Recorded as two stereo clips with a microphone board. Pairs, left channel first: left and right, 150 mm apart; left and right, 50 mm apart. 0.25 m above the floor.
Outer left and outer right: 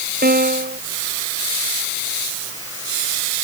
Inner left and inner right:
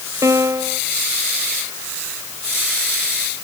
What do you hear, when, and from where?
0.2 s a piano: 85° right